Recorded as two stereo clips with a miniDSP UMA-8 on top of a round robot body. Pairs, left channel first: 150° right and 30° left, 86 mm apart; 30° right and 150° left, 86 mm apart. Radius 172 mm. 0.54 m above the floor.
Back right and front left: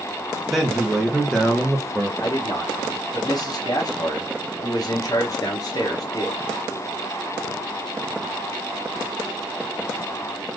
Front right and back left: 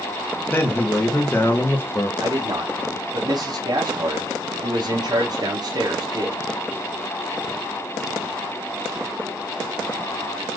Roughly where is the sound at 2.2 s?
Behind.